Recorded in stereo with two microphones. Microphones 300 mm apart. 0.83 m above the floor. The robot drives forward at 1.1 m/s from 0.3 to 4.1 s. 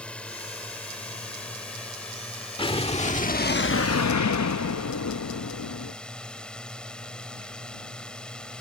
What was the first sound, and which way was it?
A drone, 5° left (ahead or behind).